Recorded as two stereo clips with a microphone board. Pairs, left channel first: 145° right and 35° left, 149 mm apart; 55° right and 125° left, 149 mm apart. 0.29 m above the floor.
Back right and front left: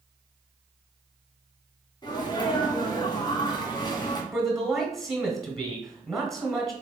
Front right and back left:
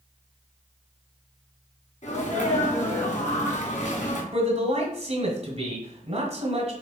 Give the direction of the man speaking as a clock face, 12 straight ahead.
8 o'clock.